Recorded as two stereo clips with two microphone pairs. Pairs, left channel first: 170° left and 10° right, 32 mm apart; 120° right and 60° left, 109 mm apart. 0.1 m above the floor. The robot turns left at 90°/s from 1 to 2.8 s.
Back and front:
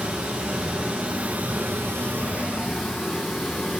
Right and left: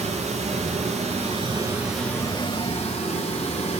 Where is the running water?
55° left, 6 m; by 3.8 s 105° right, 6 m.